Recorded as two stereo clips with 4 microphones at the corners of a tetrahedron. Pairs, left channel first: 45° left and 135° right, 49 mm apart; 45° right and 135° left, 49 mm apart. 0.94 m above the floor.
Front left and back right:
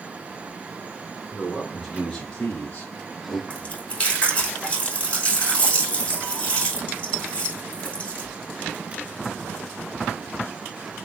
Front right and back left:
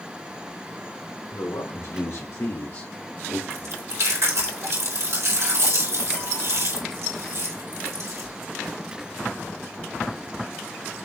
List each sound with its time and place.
1.3 s a man speaking: 50° right, 3.5 m; by 3.4 s 25° left, 2 m
3.5 s chewing: 110° left, 3.5 m